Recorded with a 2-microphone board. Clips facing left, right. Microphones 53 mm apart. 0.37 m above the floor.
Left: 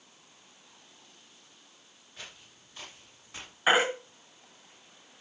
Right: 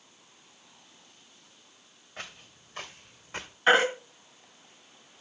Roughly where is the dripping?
I don't hear dripping.